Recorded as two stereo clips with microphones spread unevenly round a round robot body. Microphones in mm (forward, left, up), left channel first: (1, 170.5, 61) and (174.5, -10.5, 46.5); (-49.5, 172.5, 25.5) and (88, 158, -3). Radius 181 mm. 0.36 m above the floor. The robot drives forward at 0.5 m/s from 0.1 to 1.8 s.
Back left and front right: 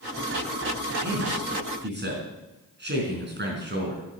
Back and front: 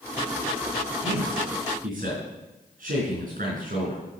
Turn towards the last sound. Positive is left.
turn(degrees=0)